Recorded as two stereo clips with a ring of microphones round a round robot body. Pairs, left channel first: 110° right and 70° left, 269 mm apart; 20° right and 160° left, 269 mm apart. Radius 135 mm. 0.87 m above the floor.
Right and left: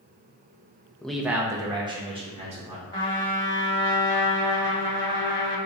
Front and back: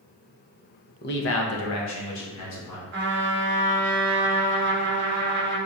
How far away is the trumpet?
About 1.2 m.